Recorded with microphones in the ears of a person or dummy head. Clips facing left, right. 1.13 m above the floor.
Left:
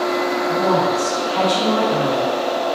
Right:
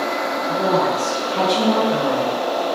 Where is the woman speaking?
20° right (ahead or behind), 0.7 m.